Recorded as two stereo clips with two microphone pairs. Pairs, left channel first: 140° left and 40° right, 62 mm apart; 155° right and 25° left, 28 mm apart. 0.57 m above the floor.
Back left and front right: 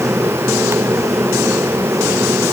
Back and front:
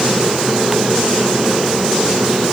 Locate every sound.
Only background noise.